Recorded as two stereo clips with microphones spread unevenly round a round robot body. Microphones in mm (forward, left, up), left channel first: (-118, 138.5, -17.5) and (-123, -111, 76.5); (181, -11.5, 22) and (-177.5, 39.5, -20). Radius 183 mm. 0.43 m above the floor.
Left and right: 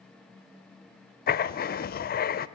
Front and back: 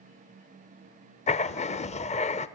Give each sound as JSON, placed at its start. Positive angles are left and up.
{"t": 1.3, "sound": "writing", "azimuth_deg": 65, "distance_m": 0.6}